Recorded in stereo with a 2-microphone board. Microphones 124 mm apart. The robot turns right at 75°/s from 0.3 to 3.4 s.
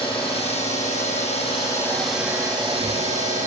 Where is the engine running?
45° left, 5.5 m; by 3.5 s 80° right, 5.5 m.